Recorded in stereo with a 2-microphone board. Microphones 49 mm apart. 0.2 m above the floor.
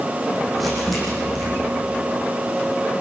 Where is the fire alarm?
No fire alarm in this recording.